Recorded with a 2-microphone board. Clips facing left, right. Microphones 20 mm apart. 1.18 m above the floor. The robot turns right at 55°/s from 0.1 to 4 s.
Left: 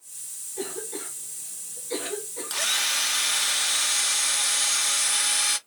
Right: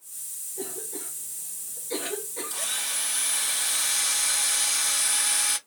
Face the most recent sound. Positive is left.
turn(degrees=165)